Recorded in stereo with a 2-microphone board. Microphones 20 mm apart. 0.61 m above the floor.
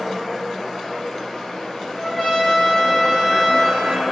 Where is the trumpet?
10° right (ahead or behind), 1.0 m.